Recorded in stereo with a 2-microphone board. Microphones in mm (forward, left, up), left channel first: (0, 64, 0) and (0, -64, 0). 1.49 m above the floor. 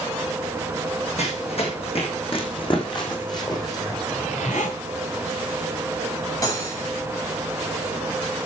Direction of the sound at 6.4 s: 25° left (ahead or behind).